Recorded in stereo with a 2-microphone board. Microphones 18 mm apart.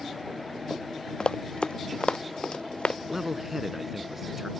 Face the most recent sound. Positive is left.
turn(degrees=-20)  # may be behind; listen again after turning